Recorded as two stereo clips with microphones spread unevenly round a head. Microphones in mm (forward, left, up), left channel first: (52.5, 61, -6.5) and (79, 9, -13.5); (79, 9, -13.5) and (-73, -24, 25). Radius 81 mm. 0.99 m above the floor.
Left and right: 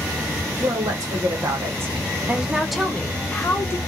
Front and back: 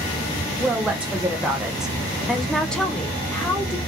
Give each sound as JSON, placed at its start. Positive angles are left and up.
{"t": 0.6, "sound": "a woman speaking", "azimuth_deg": -80, "distance_m": 1.2}